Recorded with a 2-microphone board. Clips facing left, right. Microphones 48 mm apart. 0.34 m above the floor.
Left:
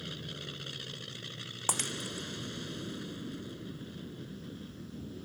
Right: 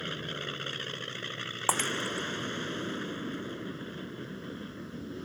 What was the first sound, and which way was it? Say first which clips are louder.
An aircraft: right 6 dB; 45° right (ahead or behind).